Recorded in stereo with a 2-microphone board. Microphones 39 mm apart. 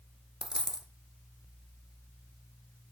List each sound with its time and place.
0.4 s a dropped coin: 15° right (ahead or behind), 1.1 m